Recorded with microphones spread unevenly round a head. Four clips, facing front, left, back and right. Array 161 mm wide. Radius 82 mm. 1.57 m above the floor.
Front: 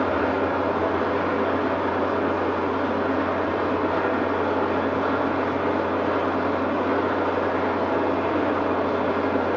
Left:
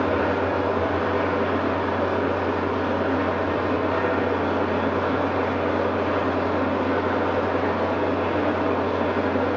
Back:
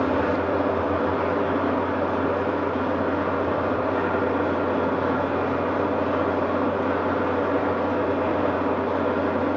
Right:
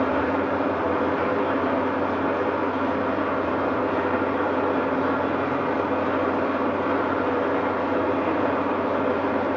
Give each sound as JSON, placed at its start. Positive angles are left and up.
{"t": 0.0, "sound": "an engine running", "azimuth_deg": 10, "distance_m": 2.5}